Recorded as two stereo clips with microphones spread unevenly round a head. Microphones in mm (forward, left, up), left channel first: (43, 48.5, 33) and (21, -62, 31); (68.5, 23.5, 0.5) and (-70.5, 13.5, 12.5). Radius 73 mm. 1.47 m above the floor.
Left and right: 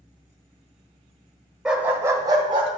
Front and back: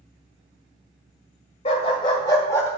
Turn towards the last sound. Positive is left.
turn(degrees=-75)